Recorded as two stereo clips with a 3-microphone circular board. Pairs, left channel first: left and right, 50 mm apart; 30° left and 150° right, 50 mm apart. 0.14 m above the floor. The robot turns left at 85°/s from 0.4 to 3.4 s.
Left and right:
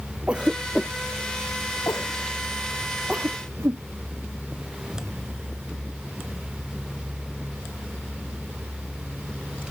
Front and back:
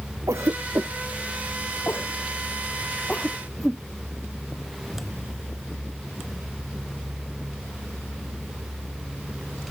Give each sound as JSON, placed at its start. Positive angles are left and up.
{"t": 0.3, "sound": "a cough", "azimuth_deg": -160}